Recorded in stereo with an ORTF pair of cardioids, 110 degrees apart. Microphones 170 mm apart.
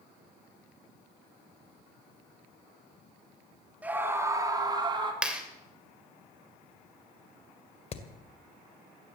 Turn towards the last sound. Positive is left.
turn(degrees=40)